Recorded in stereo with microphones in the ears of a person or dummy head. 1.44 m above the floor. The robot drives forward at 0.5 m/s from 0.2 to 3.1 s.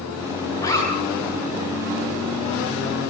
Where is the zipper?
20° left (ahead or behind), 8 m.